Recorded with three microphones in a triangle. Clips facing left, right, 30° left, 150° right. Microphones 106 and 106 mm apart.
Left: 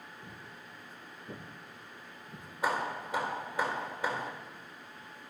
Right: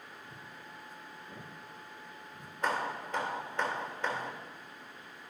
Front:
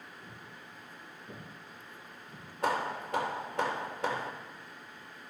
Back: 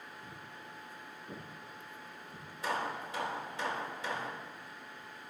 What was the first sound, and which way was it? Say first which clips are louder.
Footsteps: even, back 1 dB; 105° left.